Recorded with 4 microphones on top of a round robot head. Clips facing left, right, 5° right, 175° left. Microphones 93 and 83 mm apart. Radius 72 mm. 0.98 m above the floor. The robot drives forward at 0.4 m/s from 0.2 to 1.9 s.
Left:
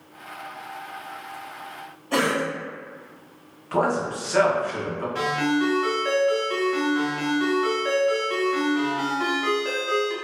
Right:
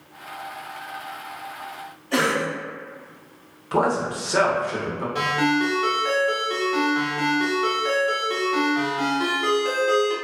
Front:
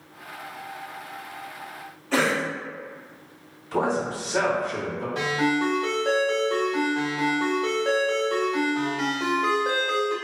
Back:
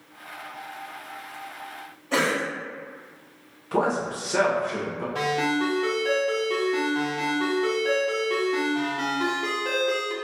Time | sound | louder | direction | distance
2.1 | a cough | right 1 dB, front 1 dB | 110° left | 1.0 m
3.7 | a man speaking | right 1 dB, even | 155° right | 0.9 m
5.2 | a ringtone | right 1 dB, front 1 dB | 165° right | 1.3 m